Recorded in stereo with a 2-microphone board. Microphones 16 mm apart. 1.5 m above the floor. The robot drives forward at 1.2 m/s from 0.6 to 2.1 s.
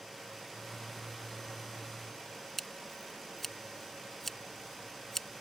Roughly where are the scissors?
Centre.